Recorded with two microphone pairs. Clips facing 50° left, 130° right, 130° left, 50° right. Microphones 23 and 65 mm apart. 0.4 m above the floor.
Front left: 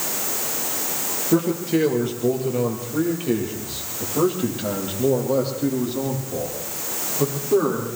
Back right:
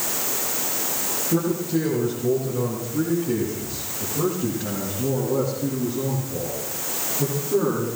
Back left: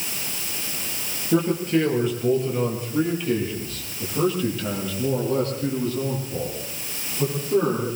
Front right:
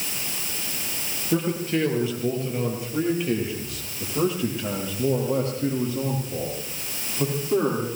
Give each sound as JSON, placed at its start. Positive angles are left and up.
{"t": 1.3, "sound": "a man speaking", "azimuth_deg": 35, "distance_m": 9.0}